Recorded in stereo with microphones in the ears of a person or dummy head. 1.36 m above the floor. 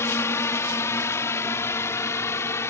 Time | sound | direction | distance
0.0 | a drone | 20° left (ahead or behind) | ?